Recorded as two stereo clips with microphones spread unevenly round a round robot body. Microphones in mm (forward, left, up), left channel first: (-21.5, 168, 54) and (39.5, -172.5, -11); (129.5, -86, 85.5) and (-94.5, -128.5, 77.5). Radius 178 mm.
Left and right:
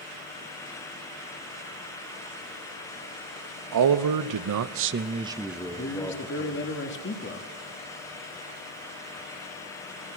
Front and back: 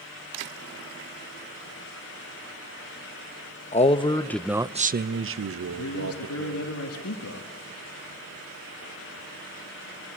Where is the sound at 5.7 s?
40° left, 1.8 m.